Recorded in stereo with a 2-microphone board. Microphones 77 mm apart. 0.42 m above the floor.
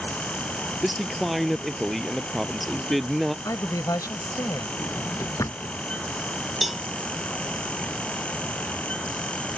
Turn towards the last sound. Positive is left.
turn(degrees=0)  # may be behind; listen again after turning